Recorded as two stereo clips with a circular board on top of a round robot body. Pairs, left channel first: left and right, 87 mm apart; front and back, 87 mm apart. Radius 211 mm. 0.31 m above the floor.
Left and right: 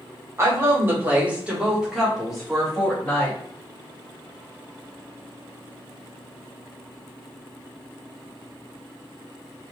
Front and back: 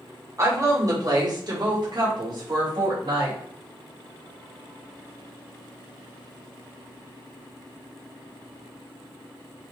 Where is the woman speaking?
140° right, 2 m; by 3.4 s 170° left, 3 m.